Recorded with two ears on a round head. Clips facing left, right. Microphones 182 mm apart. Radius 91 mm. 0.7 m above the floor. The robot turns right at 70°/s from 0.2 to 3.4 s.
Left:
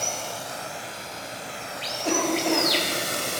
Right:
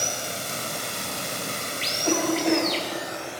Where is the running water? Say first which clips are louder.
Even; 155° right, 0.8 m; by 3.4 s 65° left, 0.8 m.